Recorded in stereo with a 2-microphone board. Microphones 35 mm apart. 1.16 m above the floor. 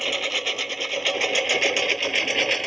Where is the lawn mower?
5° right (ahead or behind); by 2.7 s centre (ahead or behind).